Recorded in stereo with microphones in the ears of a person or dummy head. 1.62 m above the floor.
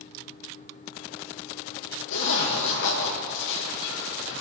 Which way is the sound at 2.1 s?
70° left (ahead or behind).